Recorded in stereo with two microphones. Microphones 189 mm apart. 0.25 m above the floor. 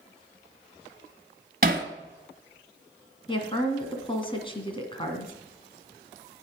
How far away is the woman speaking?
About 2 m.